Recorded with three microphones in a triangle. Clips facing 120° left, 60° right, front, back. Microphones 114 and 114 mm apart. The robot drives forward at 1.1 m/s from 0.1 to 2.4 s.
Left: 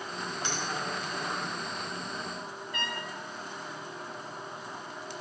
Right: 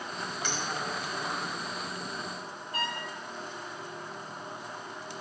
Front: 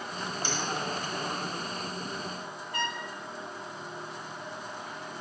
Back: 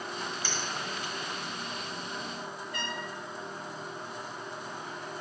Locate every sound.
0.4 s a finger snap: 65° left, 1.8 m; by 0.6 s 75° left, 1.8 m
2.7 s a trumpet: 15° right, 1.3 m